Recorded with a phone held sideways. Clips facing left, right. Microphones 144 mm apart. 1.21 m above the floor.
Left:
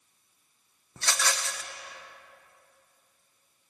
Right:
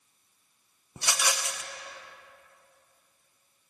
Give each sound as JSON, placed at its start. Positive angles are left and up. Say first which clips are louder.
{"t": 1.0, "sound": "a rattle", "louder": "even", "side_deg": -15, "distance_m": 0.6}